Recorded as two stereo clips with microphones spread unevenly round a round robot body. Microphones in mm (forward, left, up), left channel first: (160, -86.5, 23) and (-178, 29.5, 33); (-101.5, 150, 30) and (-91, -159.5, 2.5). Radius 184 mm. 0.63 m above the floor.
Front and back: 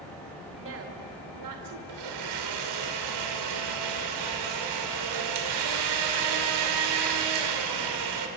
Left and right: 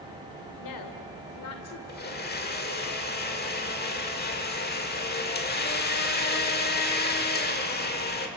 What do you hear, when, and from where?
0.6 s a woman speaking: 105° left, 2.5 m; by 1.8 s 135° left, 2 m
1.9 s a blender: 150° left, 2.5 m